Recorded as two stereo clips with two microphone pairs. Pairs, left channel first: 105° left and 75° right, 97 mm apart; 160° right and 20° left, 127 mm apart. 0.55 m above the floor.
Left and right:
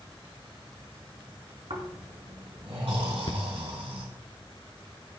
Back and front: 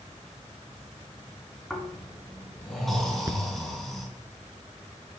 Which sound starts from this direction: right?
Snoring, at 1.7 s.